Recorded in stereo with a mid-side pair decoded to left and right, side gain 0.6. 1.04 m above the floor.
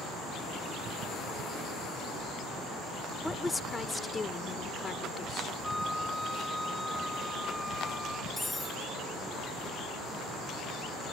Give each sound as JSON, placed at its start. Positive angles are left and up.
{"t": 3.2, "sound": "a woman speaking", "azimuth_deg": 10}
{"t": 5.6, "sound": "a flute", "azimuth_deg": 5}
{"t": 8.4, "sound": "cutlery clinking", "azimuth_deg": 10}